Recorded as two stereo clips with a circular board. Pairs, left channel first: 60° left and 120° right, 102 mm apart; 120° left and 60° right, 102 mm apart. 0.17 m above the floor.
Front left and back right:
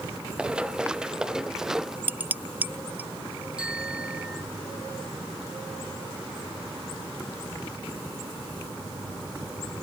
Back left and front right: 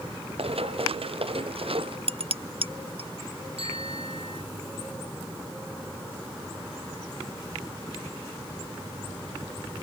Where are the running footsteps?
40° right; by 2.0 s 35° right.